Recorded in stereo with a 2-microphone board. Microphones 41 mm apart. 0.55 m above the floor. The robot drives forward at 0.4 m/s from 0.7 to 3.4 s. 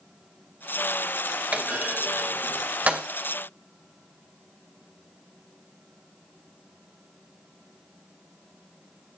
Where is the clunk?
30° right (ahead or behind), 3 m; by 3.0 s 35° right (ahead or behind), 2.5 m.